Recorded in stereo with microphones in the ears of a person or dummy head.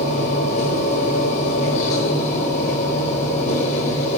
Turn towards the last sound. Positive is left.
turn(degrees=40)  # may be behind; listen again after turning